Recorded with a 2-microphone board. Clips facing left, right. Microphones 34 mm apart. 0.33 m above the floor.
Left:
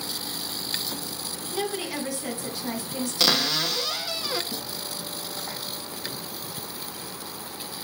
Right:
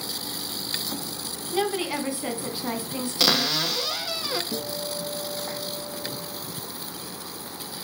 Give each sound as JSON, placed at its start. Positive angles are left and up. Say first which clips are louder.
{"t": 1.5, "sound": "a woman speaking", "louder": "right 4 dB", "side_deg": -30, "distance_m": 3.0}
{"t": 3.2, "sound": "a cupboard door", "louder": "right 1 dB", "side_deg": 5, "distance_m": 0.6}
{"t": 4.5, "sound": "a guitar", "louder": "right 4 dB", "side_deg": -30, "distance_m": 5.0}